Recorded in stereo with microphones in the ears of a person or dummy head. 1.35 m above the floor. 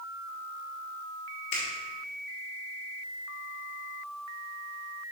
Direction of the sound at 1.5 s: 70° left (ahead or behind).